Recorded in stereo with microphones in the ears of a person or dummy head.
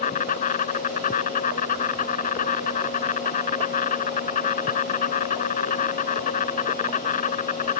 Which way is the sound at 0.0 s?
45° left (ahead or behind).